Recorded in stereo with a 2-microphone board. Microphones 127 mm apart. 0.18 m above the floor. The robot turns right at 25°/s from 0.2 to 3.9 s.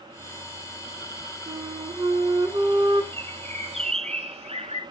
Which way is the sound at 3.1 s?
40° right (ahead or behind).